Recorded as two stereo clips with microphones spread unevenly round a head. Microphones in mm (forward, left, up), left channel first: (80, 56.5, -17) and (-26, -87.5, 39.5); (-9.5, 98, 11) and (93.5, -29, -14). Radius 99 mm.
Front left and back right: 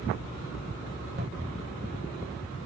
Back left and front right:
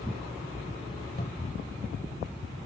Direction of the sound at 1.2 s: 175° right.